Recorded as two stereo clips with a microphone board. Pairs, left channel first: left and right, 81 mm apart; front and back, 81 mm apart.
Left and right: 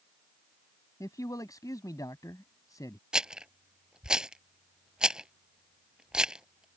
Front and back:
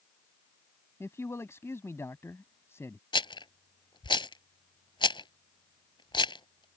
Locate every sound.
1.0 s a man speaking: 55° left
3.1 s a rattle: 10° right